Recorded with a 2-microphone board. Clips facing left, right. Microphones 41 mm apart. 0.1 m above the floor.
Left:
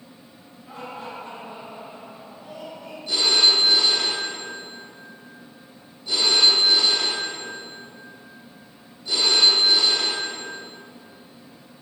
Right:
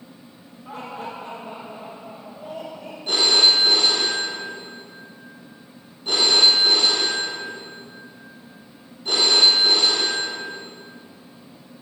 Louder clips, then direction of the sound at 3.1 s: Right 2 dB; 55° right (ahead or behind).